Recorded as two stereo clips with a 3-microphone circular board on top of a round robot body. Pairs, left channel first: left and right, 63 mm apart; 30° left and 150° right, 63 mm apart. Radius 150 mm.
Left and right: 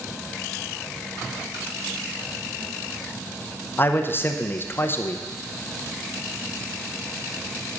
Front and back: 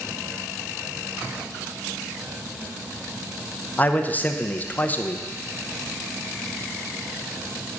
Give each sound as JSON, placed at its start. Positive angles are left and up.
{"t": 3.8, "sound": "a man speaking", "azimuth_deg": 75, "distance_m": 0.9}